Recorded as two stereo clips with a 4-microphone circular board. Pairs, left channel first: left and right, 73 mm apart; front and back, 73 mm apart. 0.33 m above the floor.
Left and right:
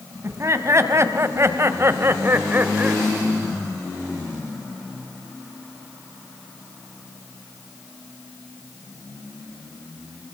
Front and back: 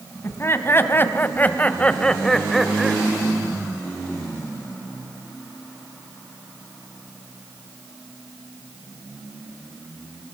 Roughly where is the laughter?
Ahead right.